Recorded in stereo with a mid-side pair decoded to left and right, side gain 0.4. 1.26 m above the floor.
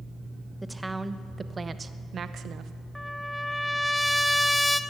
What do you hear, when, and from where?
0.6 s a woman speaking: 10° right, 1.2 m; by 2.7 s 75° right, 0.9 m
3.0 s a trumpet: 5° left, 0.8 m